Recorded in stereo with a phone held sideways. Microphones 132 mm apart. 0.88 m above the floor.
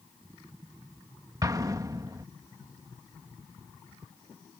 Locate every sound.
1.4 s an explosion: 25° right (ahead or behind)